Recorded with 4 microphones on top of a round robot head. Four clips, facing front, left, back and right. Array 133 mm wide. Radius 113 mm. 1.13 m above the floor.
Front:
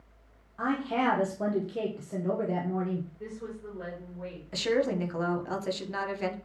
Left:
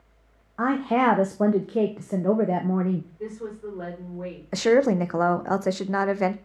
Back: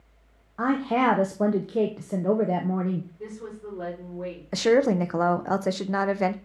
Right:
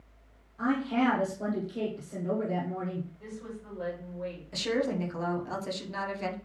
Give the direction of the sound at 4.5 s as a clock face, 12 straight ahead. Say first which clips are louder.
Left 11 dB, back 7 dB; 8 o'clock.